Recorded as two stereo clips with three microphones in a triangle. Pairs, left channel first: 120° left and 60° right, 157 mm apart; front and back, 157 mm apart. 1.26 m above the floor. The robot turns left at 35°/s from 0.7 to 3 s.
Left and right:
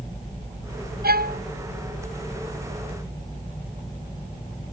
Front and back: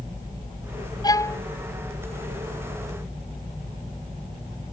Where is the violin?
65° right; by 1.4 s 75° right.